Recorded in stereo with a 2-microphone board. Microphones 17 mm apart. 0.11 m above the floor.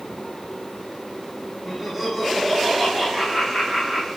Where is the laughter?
10° right (ahead or behind), 5.5 m.